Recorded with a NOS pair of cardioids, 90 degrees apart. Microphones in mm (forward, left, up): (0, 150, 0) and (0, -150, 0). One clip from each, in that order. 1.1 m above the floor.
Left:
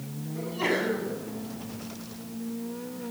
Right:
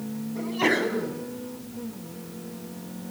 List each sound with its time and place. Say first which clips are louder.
0.3 s a sneeze: right 4 dB; 30° right, 8.5 m